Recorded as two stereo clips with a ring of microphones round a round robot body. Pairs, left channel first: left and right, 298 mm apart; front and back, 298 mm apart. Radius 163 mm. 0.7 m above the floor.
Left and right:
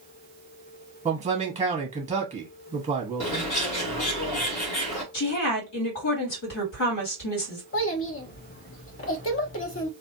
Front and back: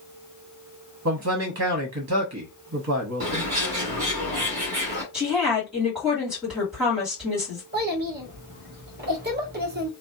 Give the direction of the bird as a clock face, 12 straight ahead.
8 o'clock.